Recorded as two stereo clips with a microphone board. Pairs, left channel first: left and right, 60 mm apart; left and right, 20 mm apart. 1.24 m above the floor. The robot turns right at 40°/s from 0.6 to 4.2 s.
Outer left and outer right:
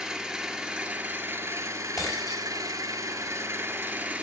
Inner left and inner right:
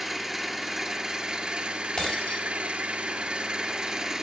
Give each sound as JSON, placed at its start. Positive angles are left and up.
{"t": 0.0, "sound": "an engine running", "azimuth_deg": -175, "distance_m": 2.0}
{"t": 2.0, "sound": "breaking glass", "side_deg": 80, "distance_m": 4.0}